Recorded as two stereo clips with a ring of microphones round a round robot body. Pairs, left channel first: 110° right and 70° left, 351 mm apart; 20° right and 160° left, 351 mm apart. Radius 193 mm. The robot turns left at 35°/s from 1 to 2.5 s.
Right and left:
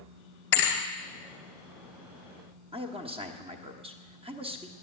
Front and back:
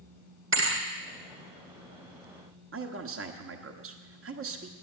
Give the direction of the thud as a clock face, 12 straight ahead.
5 o'clock.